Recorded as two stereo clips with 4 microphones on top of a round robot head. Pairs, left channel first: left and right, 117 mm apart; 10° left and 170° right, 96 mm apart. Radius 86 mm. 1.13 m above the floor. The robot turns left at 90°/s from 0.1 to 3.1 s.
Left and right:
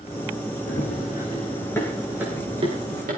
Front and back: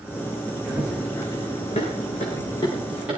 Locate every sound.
0.7 s running footsteps: 110° left, 5 m; by 3.2 s 90° right, 8.5 m